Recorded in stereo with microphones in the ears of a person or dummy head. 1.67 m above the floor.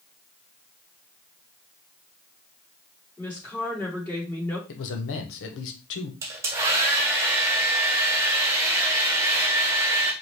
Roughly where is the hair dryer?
Centre.